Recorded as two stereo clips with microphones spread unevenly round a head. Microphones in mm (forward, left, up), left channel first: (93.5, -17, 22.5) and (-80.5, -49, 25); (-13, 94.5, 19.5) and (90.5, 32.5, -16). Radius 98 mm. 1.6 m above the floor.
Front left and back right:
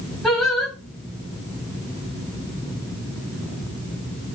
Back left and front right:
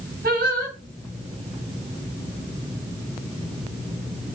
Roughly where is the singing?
Right.